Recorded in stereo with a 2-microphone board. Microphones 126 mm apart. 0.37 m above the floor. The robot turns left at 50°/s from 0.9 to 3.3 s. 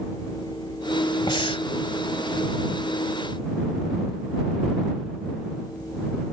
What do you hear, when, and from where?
1.3 s breathing: 35° left (ahead or behind); by 1.7 s 50° left (ahead or behind)